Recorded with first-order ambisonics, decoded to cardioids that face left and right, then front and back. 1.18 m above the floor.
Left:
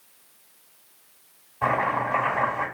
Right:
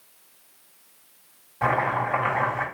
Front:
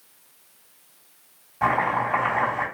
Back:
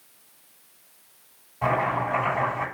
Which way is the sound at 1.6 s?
40° right.